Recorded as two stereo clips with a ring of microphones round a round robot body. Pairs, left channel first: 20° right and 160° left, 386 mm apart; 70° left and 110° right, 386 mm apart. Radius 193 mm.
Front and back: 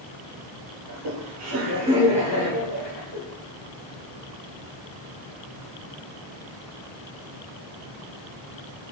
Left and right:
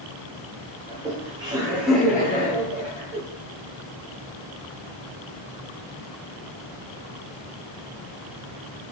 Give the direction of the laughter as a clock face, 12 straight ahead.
6 o'clock.